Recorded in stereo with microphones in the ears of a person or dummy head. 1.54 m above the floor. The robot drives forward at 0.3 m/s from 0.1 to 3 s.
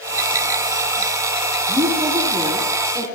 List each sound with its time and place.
1.7 s a woman speaking: 25° right (ahead or behind), 4 m; by 3.1 s 20° right (ahead or behind), 4.5 m